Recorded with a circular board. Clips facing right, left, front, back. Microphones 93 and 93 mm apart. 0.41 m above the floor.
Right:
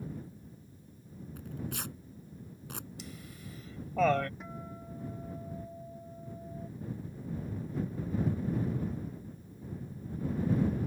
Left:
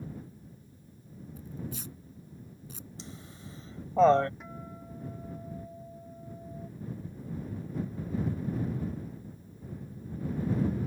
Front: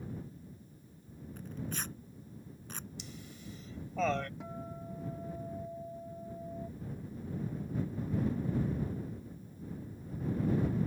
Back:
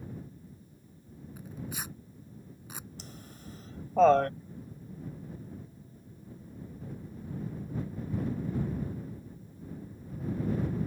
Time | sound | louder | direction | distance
1.4 | tearing paper | right 1 dB, even | 100° right | ?
3.0 | laughter | even, even | 145° left | ?
4.4 | a guitar | even, front 4 dB | straight ahead | ?